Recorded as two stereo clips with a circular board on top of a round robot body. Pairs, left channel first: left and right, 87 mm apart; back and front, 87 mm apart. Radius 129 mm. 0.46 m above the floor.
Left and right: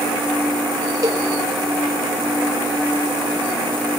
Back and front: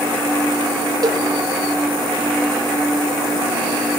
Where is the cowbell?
40° right, 2 m.